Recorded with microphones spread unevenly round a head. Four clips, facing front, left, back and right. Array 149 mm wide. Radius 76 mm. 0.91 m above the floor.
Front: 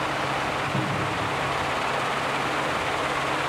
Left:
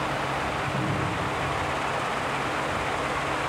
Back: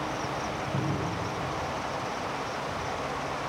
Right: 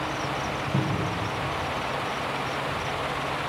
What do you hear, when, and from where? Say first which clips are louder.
0.7 s a cupboard door: even, front 4 dB; 115° right, 9.5 m